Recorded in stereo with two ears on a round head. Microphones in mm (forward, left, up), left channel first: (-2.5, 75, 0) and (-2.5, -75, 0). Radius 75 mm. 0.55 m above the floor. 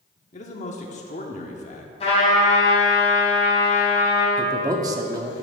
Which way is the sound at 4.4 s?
20° right (ahead or behind).